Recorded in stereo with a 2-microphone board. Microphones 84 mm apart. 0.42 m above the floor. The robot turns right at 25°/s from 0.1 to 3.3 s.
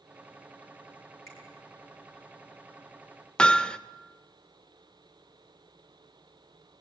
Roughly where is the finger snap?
Left.